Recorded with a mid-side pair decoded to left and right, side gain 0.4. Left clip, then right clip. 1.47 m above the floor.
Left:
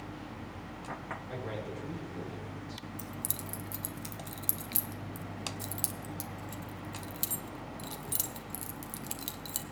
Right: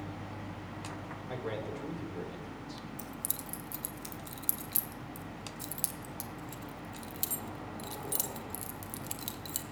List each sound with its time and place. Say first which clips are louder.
1.3 s a man speaking: right 5 dB; 35° right, 4 m
3.0 s keys jangling: left 1 dB; 5° left, 1.0 m